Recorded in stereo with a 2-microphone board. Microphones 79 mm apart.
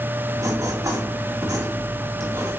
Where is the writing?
55° right (ahead or behind), 2.5 m.